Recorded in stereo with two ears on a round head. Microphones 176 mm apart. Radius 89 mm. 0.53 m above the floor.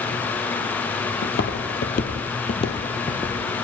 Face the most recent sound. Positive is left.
turn(degrees=10)  # may be behind; listen again after turning